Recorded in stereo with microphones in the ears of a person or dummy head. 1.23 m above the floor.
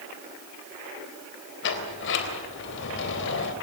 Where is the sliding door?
60° left (ahead or behind), 3.5 m.